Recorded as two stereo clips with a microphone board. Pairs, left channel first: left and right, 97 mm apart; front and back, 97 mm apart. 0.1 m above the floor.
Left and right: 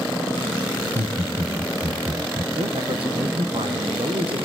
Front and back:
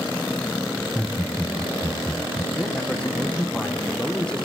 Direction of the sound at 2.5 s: 80° right.